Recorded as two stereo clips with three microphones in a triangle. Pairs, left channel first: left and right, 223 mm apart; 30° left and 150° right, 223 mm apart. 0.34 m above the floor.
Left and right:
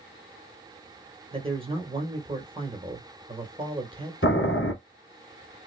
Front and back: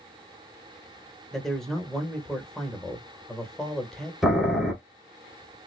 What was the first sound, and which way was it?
A man speaking, 60° right.